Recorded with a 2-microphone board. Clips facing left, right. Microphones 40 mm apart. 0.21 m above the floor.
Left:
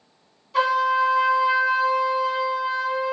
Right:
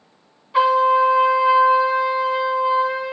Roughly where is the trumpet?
Right.